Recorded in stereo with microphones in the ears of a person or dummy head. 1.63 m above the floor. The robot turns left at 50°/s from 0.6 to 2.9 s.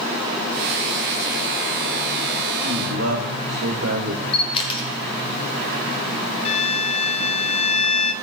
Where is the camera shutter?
35° left (ahead or behind), 1.8 m.